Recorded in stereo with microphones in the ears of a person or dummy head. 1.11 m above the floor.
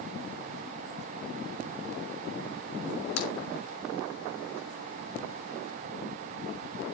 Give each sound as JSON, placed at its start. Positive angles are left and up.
{"t": 3.2, "sound": "a crack", "side_deg": 85, "distance_m": 2.5}